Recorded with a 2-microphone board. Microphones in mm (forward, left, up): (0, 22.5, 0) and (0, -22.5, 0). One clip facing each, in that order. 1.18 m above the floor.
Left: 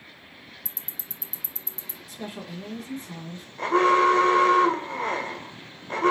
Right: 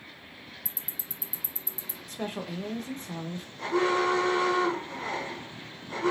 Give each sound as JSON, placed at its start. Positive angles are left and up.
{"t": 0.7, "sound": "ticking", "side_deg": -5, "distance_m": 0.5}
{"t": 2.1, "sound": "a woman speaking", "side_deg": -55, "distance_m": 0.9}
{"t": 3.6, "sound": "an alarm", "side_deg": 50, "distance_m": 0.8}